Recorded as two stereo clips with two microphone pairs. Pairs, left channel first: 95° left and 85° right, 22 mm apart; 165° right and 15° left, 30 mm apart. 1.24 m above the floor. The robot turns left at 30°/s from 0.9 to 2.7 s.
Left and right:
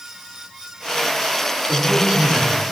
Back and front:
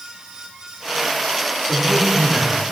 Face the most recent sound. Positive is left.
turn(degrees=-110)